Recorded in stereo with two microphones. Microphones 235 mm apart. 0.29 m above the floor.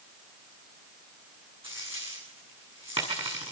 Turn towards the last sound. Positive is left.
turn(degrees=-25)  # may be behind; listen again after turning